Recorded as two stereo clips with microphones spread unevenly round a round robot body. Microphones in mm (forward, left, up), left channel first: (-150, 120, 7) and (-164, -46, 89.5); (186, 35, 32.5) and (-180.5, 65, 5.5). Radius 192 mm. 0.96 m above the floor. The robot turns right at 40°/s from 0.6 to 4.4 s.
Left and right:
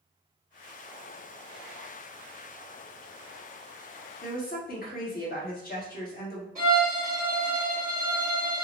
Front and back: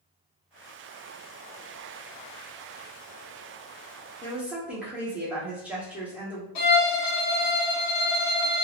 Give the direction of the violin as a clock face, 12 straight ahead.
1 o'clock.